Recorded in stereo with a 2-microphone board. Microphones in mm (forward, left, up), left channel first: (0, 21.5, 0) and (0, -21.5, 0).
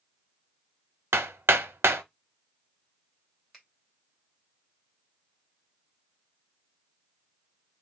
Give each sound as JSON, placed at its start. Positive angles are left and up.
{"t": 1.1, "sound": "hammering", "side_deg": -70, "distance_m": 0.5}
{"t": 3.5, "sound": "a finger snap", "side_deg": -5, "distance_m": 1.9}